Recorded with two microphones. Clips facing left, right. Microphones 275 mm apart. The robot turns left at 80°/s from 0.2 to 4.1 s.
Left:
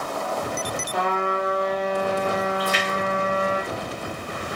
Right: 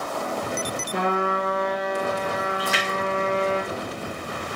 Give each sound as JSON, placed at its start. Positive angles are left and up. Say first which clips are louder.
{"t": 0.9, "sound": "a trumpet", "louder": "right 1 dB", "azimuth_deg": -105, "distance_m": 2.5}
{"t": 2.6, "sound": "a splash", "louder": "left 2 dB", "side_deg": -75, "distance_m": 2.5}